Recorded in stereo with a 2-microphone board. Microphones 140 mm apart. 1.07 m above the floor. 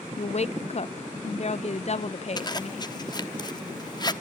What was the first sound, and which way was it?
A woman speaking, 50° left (ahead or behind).